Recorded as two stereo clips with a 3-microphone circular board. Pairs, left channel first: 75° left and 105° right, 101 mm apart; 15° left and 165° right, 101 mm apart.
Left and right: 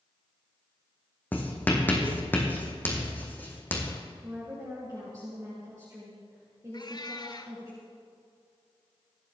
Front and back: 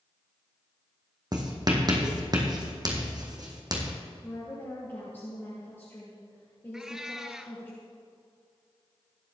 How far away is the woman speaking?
About 3.5 m.